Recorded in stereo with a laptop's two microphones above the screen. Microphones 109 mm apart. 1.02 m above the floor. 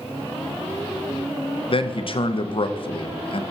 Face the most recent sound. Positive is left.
turn(degrees=55)  # may be behind; listen again after turning